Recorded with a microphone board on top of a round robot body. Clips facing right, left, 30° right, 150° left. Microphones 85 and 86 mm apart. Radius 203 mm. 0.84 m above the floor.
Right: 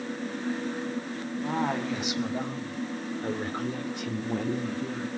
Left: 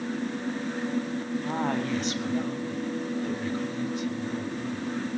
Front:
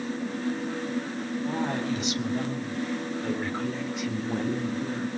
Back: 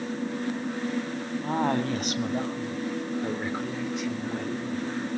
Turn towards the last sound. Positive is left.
turn(degrees=-90)